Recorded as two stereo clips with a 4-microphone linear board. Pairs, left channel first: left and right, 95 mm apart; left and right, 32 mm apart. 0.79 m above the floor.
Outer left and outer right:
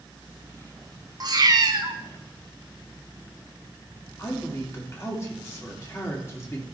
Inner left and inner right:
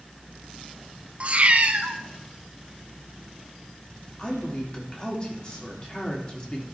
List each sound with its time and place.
1.2 s a cat meowing: 45° right (ahead or behind), 0.6 m
4.2 s a woman speaking: 30° left (ahead or behind), 1.7 m